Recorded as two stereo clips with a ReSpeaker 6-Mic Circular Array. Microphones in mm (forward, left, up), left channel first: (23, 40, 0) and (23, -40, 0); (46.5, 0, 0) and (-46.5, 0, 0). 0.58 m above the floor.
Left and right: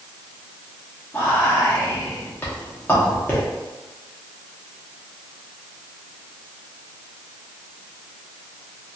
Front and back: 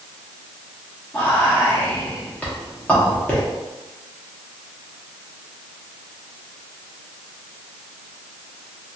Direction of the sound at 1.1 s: 60° left.